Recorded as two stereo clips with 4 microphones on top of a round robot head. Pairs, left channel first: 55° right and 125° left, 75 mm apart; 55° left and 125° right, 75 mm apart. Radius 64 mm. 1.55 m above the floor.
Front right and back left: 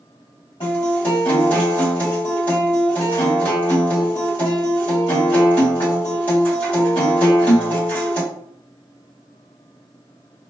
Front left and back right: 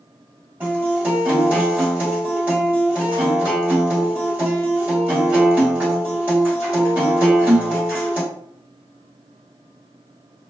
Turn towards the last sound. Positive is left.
turn(degrees=-65)